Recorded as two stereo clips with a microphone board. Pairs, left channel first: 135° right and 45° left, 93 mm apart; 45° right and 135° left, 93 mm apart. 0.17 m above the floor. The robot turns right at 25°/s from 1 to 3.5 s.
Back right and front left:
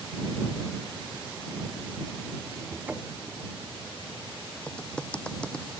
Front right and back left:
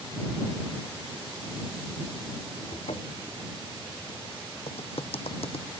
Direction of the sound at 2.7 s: 35° right.